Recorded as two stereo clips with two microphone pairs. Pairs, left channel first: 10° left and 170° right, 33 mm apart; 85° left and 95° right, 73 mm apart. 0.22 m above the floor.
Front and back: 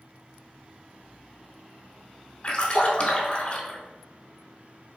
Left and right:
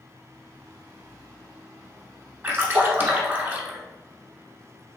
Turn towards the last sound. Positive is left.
turn(degrees=-40)